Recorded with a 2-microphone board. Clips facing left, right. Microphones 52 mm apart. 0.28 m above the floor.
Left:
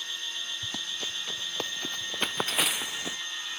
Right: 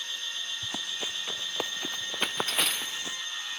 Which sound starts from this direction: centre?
Running footsteps, at 0.6 s.